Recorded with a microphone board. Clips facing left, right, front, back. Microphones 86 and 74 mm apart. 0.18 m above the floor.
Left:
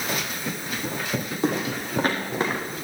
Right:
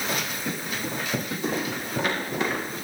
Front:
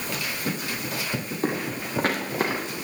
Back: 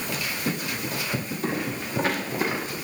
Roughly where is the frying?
No frying in this recording.